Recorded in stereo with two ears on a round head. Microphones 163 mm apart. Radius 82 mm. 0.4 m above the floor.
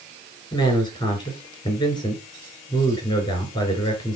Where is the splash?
I don't hear a splash.